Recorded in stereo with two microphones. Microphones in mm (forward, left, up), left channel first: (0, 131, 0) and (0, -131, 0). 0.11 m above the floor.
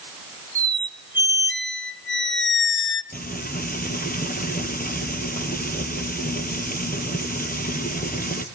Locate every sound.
0.6 s a squeak: 45° left (ahead or behind), 0.7 m
3.1 s frying: 35° left (ahead or behind), 2 m